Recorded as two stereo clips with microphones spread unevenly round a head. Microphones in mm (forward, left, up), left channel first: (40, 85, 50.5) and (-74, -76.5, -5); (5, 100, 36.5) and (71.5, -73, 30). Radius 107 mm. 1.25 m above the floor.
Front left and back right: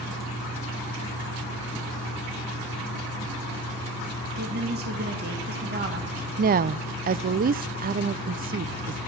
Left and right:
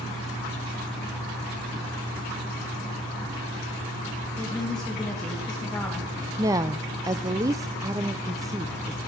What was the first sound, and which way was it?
A woman speaking, 160° right.